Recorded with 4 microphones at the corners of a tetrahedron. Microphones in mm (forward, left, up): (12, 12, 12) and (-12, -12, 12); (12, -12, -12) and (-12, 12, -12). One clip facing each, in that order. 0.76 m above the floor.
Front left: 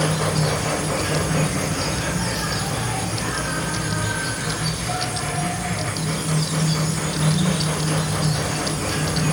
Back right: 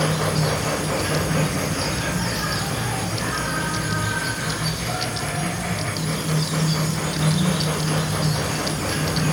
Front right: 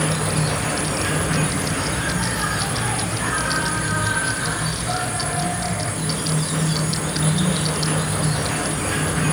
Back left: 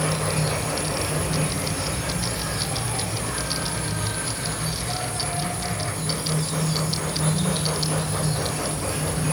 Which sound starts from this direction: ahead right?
An insect, at 0.0 s.